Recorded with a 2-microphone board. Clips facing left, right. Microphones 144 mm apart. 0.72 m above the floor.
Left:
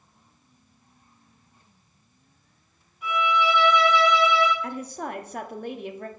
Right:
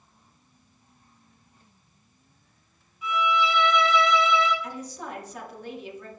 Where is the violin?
60° left (ahead or behind), 3.5 m.